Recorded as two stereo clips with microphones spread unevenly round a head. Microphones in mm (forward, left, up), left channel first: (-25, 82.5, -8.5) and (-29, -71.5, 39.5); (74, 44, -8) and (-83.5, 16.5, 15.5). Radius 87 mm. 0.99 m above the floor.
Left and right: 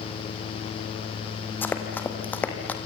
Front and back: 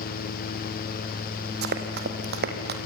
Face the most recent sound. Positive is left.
turn(degrees=175)